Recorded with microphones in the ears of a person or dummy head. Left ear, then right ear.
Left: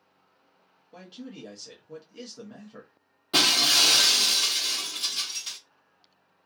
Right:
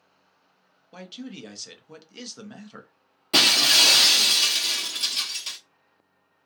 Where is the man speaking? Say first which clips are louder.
Right 4 dB; 35° right (ahead or behind), 0.5 m.